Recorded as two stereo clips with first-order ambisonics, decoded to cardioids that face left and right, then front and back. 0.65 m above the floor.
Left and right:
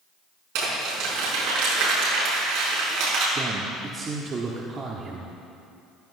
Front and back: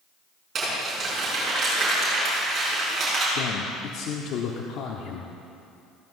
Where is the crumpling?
115° right, 6 m.